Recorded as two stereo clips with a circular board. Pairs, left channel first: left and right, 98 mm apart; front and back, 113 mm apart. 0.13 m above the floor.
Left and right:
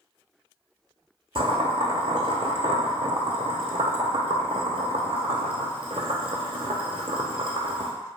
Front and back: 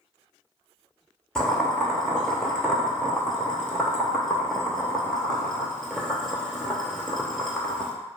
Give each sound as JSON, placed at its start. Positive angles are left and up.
{"t": 1.4, "sound": "boiling", "azimuth_deg": -85, "distance_m": 0.6}